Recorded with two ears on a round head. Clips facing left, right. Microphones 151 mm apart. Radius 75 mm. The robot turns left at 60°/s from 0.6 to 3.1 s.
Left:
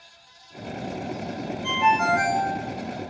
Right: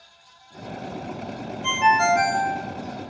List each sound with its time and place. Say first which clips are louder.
1.6 s a ringtone: right 2 dB; 115° right, 0.6 m; by 2.5 s 165° right, 0.6 m